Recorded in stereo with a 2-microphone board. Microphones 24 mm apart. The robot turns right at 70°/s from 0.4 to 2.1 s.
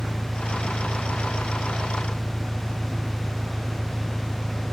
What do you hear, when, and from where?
0.0 s an engine running: 140° right; by 4.7 s 20° right